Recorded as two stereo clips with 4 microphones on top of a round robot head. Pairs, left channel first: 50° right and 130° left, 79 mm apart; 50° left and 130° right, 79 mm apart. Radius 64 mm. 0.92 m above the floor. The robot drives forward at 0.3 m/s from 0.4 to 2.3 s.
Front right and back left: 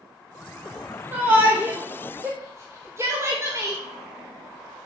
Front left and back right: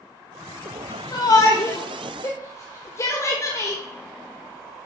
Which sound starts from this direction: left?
A shout, at 1.1 s.